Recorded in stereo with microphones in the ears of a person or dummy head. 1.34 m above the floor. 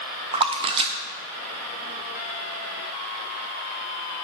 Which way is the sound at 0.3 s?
30° right (ahead or behind).